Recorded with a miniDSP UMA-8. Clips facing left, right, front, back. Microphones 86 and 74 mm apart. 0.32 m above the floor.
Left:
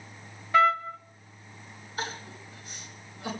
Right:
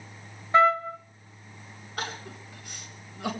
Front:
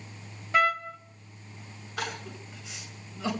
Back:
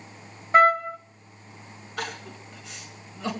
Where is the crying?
90° right, 4.5 m.